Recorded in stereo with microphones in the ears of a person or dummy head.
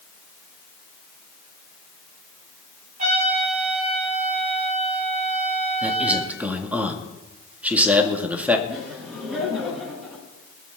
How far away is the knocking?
I don't hear knocking.